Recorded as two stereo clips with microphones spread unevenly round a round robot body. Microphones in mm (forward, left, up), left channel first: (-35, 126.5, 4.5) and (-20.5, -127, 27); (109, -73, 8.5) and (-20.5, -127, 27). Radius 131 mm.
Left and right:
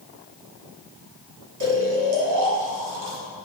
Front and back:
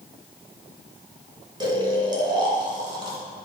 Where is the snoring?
100° right, 1.7 m.